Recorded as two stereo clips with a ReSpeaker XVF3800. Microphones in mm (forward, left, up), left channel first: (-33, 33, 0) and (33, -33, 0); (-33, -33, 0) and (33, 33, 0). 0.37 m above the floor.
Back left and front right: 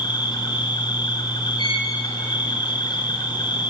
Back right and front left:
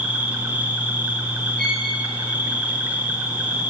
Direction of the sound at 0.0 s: 115° left.